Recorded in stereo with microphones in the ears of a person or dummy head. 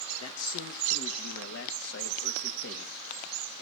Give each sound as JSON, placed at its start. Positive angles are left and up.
{"t": 0.2, "sound": "a man speaking", "side_deg": 80, "distance_m": 2.5}